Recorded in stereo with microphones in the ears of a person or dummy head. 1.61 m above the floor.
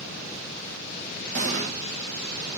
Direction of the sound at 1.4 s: 40° right (ahead or behind).